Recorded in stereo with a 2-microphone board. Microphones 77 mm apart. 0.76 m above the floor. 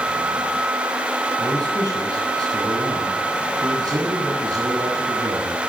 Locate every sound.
1.4 s a man speaking: 55° right (ahead or behind), 8.5 m